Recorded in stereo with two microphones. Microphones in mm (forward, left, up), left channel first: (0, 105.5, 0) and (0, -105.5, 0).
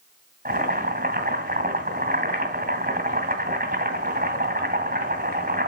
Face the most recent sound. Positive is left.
turn(degrees=-40)  # may be behind; listen again after turning